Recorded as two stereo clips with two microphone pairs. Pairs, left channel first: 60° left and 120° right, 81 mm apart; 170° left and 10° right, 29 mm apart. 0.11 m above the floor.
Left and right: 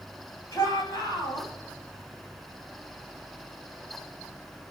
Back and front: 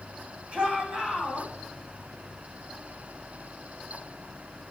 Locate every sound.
0.5 s a shout: 40° left, 6.5 m